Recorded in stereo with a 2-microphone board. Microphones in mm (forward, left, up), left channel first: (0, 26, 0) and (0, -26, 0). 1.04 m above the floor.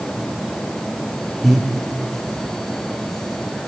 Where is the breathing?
Centre (ahead or behind), 3.5 m.